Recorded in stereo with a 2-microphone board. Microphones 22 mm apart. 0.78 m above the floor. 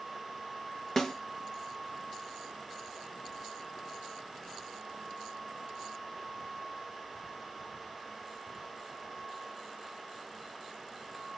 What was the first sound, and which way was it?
A snare drum, 25° left (ahead or behind).